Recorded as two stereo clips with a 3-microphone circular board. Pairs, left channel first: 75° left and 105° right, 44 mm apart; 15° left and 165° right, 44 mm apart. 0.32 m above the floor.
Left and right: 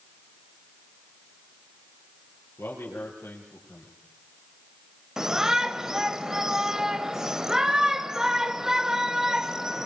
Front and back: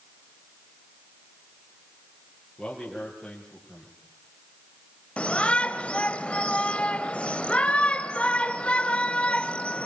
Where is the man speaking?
85° left, 6 m.